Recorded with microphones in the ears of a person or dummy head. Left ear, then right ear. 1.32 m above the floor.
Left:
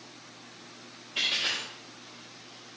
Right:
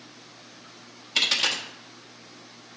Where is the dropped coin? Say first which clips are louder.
Right 5 dB; 55° right (ahead or behind), 1.1 m.